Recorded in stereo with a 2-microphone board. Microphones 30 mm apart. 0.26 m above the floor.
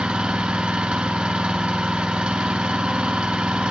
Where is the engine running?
40° right (ahead or behind), 3 m.